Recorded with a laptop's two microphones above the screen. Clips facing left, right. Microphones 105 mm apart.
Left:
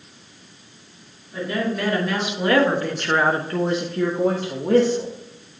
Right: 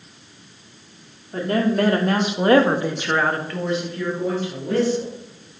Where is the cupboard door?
I don't hear a cupboard door.